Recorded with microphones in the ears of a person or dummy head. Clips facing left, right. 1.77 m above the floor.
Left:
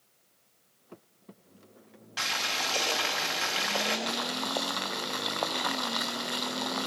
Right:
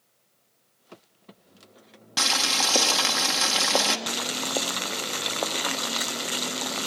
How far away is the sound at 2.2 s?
About 1.2 m.